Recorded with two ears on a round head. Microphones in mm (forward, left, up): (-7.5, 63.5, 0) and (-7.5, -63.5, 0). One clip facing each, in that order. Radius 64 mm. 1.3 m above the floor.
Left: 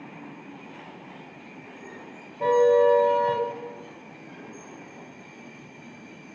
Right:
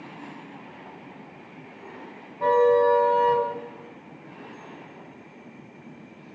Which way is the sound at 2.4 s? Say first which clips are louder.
Even; 30° left (ahead or behind).